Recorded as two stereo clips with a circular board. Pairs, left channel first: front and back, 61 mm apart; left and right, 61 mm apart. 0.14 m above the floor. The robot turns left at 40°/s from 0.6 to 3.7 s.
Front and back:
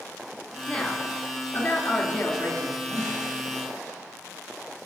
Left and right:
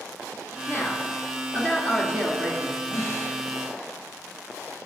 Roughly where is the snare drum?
Behind left.